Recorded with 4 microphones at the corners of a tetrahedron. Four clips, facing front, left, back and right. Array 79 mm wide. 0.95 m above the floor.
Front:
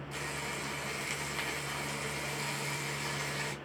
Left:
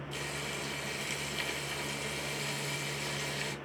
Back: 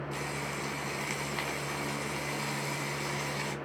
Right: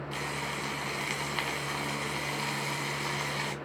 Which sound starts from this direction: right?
Frying, at 0.1 s.